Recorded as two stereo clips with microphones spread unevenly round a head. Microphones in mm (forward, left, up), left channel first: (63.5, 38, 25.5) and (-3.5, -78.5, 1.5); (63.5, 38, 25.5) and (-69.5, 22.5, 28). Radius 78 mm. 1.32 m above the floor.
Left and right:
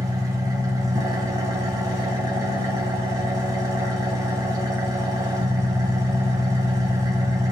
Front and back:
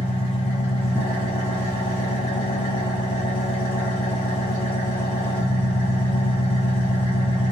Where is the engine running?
55° right, 0.9 m.